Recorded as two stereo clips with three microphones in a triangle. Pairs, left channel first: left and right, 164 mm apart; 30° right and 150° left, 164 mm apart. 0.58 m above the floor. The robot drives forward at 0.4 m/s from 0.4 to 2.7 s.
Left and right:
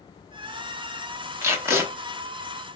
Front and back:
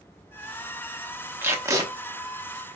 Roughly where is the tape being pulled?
Behind right.